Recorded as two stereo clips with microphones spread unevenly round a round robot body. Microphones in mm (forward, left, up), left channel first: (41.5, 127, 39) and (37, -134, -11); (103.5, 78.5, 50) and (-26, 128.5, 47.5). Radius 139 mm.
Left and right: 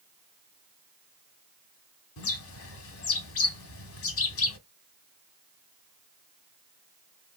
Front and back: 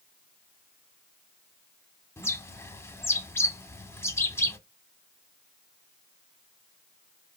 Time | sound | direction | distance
2.2 | a bird | 50° left | 0.7 m